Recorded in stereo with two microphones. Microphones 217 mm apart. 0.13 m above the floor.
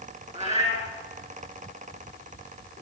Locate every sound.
0.3 s a cat meowing: 30° right (ahead or behind), 6.5 m